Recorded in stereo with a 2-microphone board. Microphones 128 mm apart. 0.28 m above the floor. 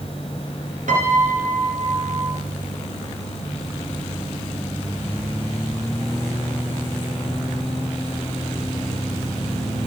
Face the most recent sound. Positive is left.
turn(degrees=-75)  # may be behind; listen again after turning